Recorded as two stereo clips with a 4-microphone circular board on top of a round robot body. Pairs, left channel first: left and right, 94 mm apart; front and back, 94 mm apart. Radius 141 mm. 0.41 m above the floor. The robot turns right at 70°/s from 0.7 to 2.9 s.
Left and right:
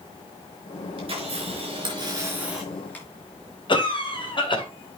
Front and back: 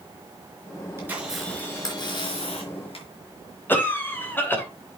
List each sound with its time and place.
1.0 s a camera shutter: 120° right, 4 m; by 3.1 s 15° left, 4 m
3.7 s a cough: 65° left, 3 m